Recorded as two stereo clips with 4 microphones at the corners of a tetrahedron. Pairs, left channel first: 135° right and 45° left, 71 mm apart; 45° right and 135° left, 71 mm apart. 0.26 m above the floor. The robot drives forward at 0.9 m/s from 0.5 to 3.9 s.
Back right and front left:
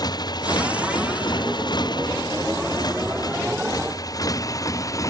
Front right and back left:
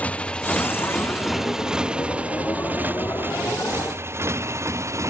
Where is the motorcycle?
115° right; by 5.1 s 175° right.